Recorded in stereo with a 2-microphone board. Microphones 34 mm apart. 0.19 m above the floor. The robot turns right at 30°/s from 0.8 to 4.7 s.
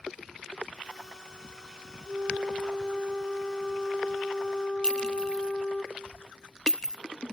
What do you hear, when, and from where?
2.1 s a flute: 50° right, 1.5 m; by 5.8 s 30° left, 1.5 m
4.8 s a clink: 25° left (ahead or behind), 0.6 m